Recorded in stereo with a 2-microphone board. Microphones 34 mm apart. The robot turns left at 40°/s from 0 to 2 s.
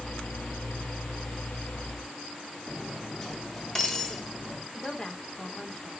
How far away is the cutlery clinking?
About 1.9 m.